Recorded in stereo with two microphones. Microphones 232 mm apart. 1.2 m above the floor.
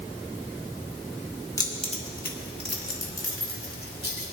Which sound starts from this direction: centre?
Keys jangling, at 1.6 s.